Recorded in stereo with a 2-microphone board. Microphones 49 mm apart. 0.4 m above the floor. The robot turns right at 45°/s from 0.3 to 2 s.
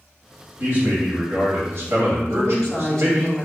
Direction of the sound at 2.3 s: 10° left (ahead or behind).